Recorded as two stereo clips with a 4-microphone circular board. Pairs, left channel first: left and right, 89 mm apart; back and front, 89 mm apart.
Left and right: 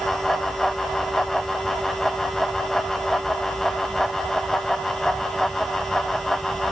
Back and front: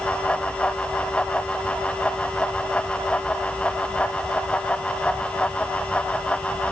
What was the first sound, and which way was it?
Only background noise.